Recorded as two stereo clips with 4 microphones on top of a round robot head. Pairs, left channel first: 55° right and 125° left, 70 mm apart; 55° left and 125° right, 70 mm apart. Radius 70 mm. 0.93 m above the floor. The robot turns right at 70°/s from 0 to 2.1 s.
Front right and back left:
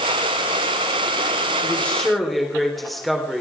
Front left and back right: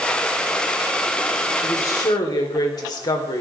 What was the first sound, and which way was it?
A woman speaking, straight ahead.